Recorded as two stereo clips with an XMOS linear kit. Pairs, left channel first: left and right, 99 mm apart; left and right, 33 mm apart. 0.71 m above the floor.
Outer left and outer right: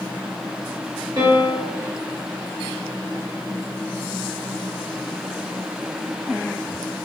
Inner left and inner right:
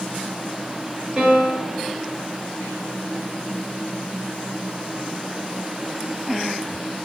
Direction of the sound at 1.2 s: 35° right (ahead or behind).